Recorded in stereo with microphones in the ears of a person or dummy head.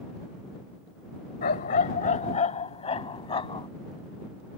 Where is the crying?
No crying in this recording.